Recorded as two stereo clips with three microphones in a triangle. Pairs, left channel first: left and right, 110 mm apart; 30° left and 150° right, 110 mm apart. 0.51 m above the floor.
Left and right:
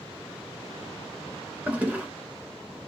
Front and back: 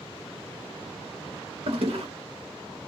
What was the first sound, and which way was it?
A toilet flushing, 165° right.